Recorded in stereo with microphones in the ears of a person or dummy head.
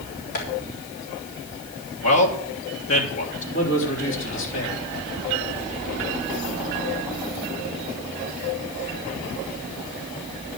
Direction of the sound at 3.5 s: 70° left (ahead or behind).